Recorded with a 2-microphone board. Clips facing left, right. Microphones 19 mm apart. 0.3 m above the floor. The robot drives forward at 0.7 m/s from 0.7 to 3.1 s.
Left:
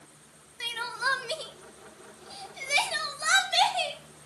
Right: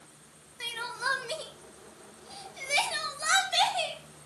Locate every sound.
0.6 s crying: 15° left (ahead or behind), 1.1 m; by 4.0 s 10° left (ahead or behind), 1.6 m